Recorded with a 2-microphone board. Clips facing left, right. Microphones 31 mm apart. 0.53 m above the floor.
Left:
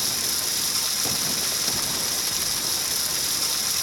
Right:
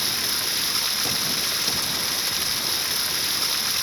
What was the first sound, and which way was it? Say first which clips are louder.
Running water: right 2 dB; 25° right (ahead or behind).